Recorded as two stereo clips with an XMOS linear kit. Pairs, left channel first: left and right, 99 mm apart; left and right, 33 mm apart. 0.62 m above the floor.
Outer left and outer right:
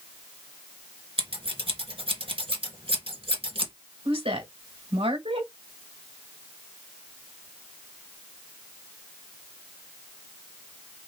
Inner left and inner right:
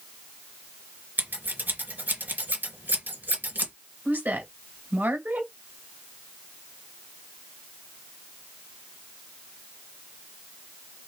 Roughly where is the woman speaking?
Right.